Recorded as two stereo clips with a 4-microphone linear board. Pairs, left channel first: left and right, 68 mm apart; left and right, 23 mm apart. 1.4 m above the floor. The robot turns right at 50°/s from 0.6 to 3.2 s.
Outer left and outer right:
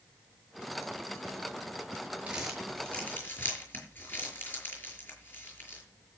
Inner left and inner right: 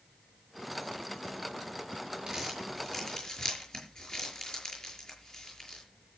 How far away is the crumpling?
About 6 m.